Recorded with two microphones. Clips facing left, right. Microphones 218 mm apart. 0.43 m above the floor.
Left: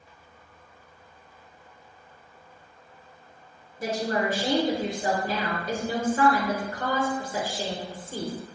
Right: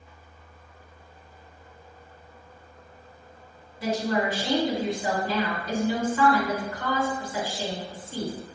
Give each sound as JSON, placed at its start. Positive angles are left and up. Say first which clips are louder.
{"t": 3.8, "sound": "a woman speaking", "louder": "right 1 dB", "side_deg": 50, "distance_m": 1.1}